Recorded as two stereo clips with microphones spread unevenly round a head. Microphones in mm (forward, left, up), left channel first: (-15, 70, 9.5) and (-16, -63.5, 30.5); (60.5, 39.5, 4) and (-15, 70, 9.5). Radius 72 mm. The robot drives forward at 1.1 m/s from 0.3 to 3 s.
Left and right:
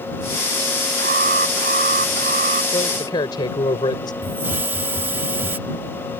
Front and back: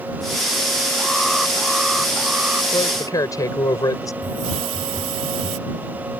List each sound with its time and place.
1.0 s an alarm: 110° right; by 2.6 s 120° right
2.7 s a man speaking: 25° left
4.2 s a hiss: 165° right